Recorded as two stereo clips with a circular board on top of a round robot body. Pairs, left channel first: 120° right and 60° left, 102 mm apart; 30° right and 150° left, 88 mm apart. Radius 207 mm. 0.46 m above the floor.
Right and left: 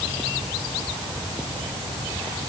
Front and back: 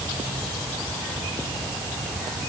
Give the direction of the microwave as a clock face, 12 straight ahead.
No microwave in this recording.